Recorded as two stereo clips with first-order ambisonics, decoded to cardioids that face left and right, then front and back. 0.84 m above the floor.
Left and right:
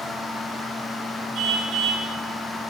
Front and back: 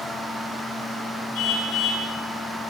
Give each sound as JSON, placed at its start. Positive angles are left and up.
{"t": 1.4, "sound": "a car horn", "azimuth_deg": -40, "distance_m": 10.0}